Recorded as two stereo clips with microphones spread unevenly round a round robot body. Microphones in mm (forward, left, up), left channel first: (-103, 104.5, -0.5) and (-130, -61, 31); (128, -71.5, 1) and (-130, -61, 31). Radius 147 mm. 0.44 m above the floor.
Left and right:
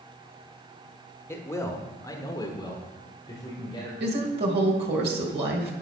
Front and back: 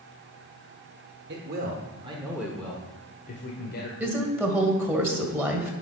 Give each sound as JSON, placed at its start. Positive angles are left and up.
{"t": 1.3, "sound": "a man speaking", "azimuth_deg": 140, "distance_m": 1.4}
{"t": 4.0, "sound": "a woman speaking", "azimuth_deg": -100, "distance_m": 2.0}